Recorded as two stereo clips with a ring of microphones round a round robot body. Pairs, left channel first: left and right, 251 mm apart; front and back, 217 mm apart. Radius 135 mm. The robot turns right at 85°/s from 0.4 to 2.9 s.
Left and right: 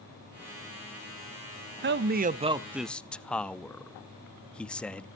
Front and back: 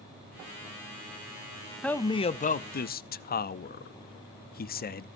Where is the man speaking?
85° right, 0.7 m; by 5.0 s 5° left, 0.7 m.